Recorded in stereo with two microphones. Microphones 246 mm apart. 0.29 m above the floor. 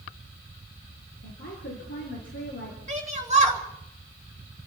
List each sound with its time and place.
1.2 s a woman speaking: 50° left (ahead or behind), 5 m
2.9 s a shout: 30° right (ahead or behind), 3.5 m